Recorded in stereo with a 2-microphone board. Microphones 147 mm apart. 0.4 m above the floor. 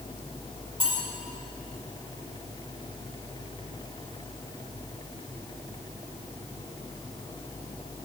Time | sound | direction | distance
0.8 | cutlery clinking | 35° right (ahead or behind) | 2 m